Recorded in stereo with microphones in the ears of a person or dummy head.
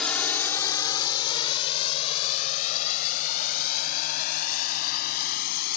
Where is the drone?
10° left (ahead or behind); by 5.8 s 60° left (ahead or behind).